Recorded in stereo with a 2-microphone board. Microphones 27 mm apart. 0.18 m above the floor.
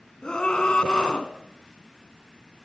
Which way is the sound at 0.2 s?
35° left (ahead or behind).